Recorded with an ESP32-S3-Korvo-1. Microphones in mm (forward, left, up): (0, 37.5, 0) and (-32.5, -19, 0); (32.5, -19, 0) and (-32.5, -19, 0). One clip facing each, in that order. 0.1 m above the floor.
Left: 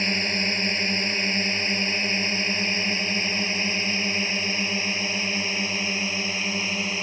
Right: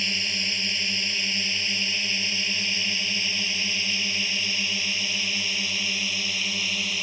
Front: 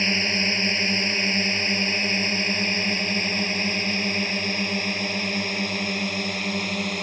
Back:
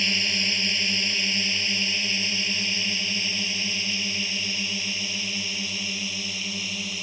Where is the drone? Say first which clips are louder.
Left 5 dB, front 4 dB; 35° left; by 7.0 s 10° left.